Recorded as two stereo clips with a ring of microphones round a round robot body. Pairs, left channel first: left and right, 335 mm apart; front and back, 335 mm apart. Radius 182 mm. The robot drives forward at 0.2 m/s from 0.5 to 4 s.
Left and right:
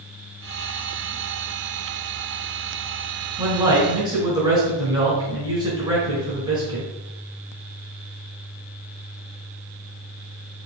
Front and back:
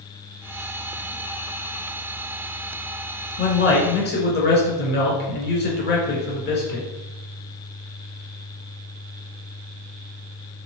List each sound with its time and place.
3.4 s a man speaking: 20° right, 1.3 m; by 6.9 s 25° right, 1.2 m